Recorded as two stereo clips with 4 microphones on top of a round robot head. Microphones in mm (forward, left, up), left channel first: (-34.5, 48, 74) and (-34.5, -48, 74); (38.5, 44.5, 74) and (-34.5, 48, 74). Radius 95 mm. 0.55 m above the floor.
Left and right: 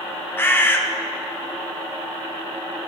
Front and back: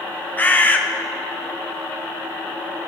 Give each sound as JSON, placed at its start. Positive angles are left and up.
{"t": 0.4, "sound": "a bird", "azimuth_deg": 40, "distance_m": 1.1}